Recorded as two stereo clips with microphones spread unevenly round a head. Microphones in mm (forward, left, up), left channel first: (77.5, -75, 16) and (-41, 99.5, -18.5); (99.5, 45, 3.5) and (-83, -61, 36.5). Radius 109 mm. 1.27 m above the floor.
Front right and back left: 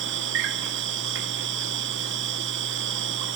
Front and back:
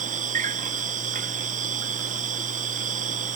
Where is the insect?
150° left, 1.2 m.